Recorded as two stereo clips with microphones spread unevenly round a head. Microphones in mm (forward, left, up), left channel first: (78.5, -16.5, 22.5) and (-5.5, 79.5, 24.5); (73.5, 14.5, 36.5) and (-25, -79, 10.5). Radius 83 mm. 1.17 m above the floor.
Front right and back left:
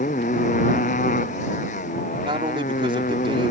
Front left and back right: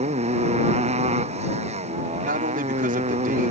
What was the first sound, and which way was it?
A motorcycle, 95° right.